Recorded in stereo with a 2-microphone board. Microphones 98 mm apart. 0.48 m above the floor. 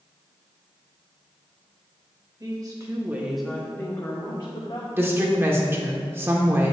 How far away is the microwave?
I don't hear a microwave.